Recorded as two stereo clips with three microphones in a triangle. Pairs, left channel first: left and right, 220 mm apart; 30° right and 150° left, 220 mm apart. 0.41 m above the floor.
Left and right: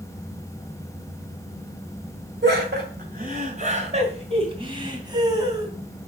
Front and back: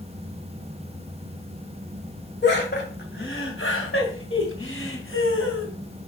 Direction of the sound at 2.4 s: 60° right.